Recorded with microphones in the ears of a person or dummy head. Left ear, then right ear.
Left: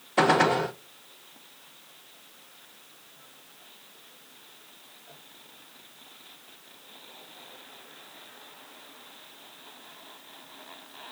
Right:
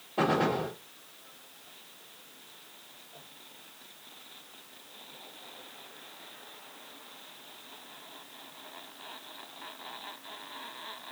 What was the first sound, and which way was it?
A gunshot, 45° left (ahead or behind).